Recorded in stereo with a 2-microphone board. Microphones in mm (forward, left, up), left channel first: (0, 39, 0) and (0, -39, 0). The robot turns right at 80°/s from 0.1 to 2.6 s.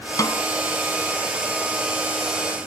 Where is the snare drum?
50° left (ahead or behind); by 0.4 s 55° left (ahead or behind).